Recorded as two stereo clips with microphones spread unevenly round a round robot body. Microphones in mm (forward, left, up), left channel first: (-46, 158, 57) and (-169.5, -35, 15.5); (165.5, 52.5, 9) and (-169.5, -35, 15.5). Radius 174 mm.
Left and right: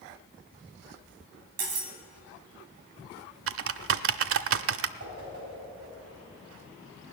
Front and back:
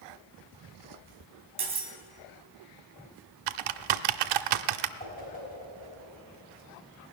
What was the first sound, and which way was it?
Cutlery clinking, 90° right.